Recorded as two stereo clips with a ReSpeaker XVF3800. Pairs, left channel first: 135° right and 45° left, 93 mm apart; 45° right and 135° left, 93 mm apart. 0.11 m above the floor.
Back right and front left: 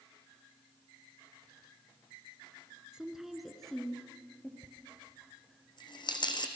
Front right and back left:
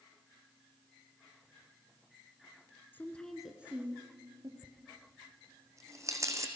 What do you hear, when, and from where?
2.9 s a woman speaking: 20° right, 1.7 m; by 4.5 s 155° left, 2.5 m
4.6 s a dropped coin: 170° right, 1.5 m